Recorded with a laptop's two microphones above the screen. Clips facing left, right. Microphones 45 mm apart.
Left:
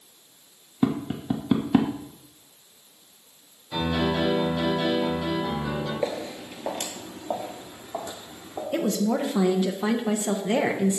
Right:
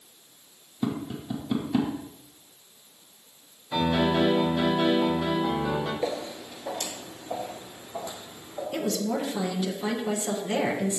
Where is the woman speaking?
30° left (ahead or behind), 0.7 m.